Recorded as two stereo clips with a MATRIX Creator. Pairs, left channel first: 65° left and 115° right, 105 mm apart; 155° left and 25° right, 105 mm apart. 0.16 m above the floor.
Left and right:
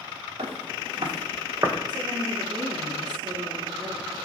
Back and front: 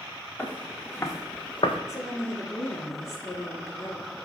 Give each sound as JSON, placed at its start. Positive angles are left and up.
{"t": 0.4, "sound": "footsteps", "azimuth_deg": -125, "distance_m": 2.5}
{"t": 1.9, "sound": "a woman speaking", "azimuth_deg": -145, "distance_m": 2.0}